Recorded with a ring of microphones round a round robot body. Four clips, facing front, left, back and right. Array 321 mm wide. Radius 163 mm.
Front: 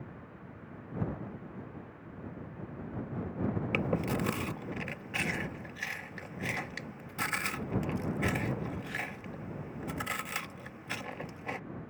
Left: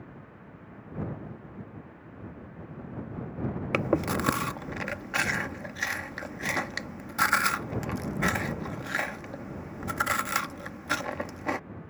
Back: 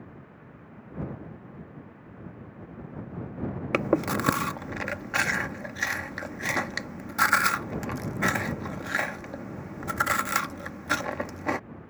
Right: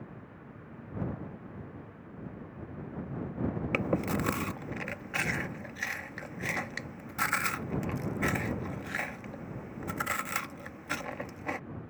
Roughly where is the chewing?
Behind.